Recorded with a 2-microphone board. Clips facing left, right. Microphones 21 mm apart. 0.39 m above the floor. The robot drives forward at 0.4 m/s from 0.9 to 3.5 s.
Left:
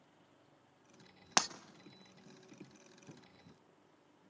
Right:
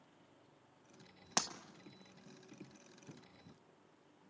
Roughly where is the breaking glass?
Left.